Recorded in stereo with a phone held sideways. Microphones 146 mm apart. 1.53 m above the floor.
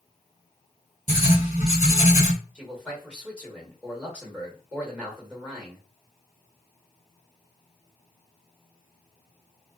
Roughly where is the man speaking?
Centre.